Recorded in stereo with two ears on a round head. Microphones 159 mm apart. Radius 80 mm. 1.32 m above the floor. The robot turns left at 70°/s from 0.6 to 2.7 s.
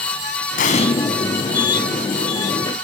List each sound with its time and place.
0.6 s an explosion: 55° left (ahead or behind), 4.5 m; by 0.9 s 35° left (ahead or behind), 4.5 m